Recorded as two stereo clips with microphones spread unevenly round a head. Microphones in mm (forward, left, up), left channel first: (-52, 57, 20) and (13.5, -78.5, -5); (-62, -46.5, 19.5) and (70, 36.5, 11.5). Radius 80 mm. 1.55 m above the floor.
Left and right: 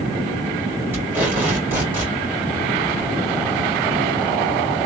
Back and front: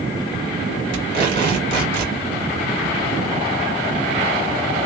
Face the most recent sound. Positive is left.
turn(degrees=15)